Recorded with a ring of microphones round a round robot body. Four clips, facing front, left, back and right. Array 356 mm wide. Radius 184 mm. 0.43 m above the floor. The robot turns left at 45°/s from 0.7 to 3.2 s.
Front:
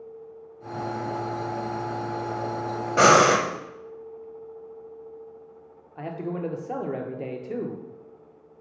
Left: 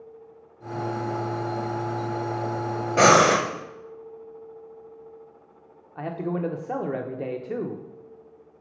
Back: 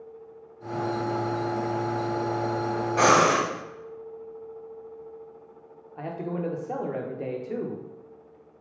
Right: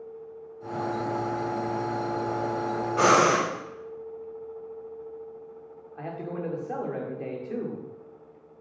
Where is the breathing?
60° left, 0.7 m; by 3.5 s 50° left, 0.7 m.